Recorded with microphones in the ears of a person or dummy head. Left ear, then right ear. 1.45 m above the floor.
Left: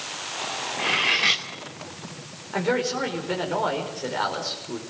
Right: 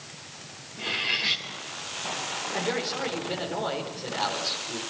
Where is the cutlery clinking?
35° left (ahead or behind), 1.9 m.